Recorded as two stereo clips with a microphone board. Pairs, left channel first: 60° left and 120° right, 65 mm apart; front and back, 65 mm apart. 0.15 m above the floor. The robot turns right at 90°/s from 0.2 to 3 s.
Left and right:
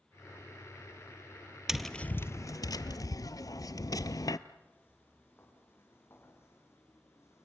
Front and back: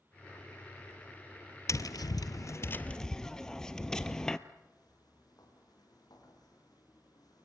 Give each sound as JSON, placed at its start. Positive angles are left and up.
{"t": 1.7, "sound": "tapping", "azimuth_deg": -40, "distance_m": 0.8}
{"t": 4.6, "sound": "footsteps", "azimuth_deg": 0, "distance_m": 8.0}